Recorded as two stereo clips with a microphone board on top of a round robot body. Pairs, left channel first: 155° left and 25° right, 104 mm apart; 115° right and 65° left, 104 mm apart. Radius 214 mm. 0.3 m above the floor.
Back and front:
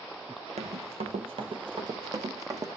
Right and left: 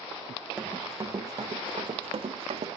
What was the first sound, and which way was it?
Running footsteps, 15° right.